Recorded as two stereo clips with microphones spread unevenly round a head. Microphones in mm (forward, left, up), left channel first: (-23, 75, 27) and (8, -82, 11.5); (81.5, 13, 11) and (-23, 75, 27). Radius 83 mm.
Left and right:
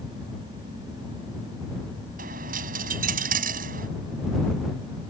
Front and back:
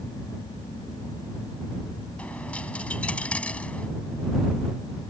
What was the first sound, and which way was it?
A dropped coin, 115° right.